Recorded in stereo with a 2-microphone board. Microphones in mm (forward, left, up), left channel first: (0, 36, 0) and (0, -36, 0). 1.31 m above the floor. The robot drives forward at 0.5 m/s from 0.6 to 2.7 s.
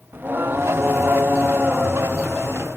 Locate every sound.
0.1 s singing: 30° right (ahead or behind), 0.7 m; by 2.8 s 15° right (ahead or behind), 1.2 m